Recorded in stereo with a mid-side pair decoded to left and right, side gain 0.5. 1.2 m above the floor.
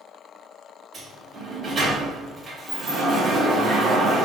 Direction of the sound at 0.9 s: 45° right.